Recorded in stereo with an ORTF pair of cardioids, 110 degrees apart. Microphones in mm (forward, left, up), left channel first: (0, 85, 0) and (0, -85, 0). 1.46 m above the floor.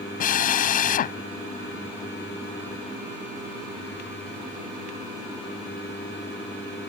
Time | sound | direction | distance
0.2 | a drill | 55° left | ?